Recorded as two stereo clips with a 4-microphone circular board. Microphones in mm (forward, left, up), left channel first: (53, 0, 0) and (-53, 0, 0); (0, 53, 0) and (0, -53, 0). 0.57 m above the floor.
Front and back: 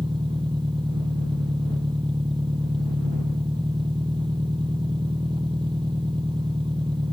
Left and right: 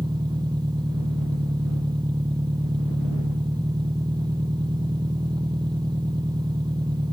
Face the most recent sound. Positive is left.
turn(degrees=-140)